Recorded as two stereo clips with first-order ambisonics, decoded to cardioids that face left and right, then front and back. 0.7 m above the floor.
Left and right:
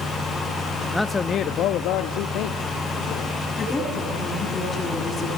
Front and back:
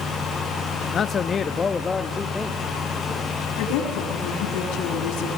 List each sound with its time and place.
0.9 s a man speaking: straight ahead, 0.6 m; by 3.5 s 90° left, 1.8 m
3.6 s a woman speaking: 15° left, 7 m